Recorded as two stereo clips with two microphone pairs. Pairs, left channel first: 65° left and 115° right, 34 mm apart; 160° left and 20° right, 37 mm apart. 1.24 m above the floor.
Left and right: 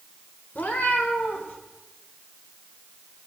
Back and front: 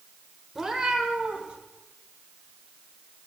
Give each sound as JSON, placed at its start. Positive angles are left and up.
{"t": 0.6, "sound": "a cat meowing", "azimuth_deg": 65, "distance_m": 1.5}